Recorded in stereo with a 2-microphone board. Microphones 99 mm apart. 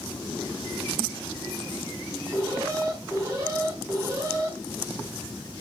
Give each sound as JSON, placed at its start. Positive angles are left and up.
{"t": 2.3, "sound": "an alarm", "side_deg": -35, "distance_m": 4.0}